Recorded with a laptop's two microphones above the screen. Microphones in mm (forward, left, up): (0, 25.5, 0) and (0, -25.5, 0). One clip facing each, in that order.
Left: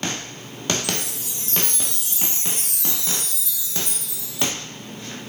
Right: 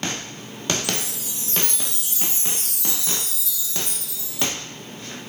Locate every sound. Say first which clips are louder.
0.8 s a chime: even; 60° left (ahead or behind), 1.4 m